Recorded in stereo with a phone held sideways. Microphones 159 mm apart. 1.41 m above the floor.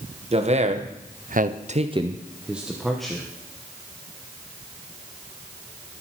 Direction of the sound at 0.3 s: 40° right (ahead or behind).